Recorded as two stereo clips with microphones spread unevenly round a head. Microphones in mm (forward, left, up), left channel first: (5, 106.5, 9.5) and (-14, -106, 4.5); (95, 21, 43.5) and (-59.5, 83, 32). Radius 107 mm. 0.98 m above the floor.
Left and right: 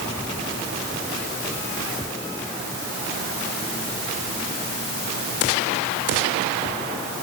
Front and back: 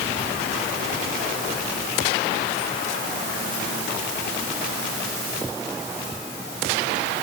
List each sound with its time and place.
Only background noise.